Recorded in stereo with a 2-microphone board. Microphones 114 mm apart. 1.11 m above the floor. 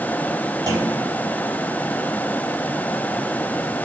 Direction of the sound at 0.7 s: 35° right (ahead or behind).